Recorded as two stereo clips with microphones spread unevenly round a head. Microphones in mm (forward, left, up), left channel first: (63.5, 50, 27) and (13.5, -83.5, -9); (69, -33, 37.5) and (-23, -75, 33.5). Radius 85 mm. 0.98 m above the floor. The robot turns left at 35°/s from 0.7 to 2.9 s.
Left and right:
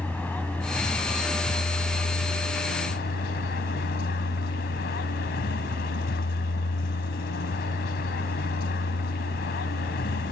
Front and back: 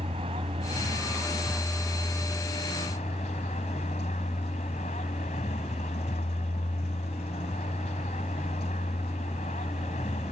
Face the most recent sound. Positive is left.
turn(degrees=70)